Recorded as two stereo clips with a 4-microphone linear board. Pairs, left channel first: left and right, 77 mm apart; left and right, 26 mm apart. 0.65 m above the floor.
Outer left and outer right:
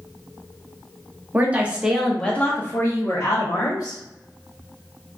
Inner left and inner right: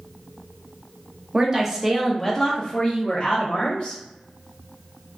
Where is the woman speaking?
25° right (ahead or behind), 0.7 m; by 4.0 s 55° left (ahead or behind), 1.1 m.